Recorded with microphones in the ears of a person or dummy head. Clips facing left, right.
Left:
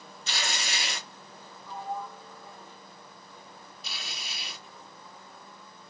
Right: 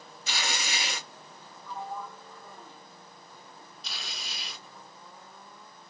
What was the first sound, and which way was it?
Tearing paper, 5° right (ahead or behind).